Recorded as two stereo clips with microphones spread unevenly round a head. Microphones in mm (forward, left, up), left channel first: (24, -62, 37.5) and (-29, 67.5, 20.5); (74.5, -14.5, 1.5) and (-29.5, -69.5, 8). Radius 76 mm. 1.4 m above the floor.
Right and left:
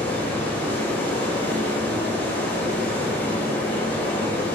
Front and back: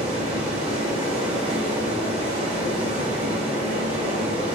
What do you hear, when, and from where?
0.0 s running water: 140° right, 1.8 m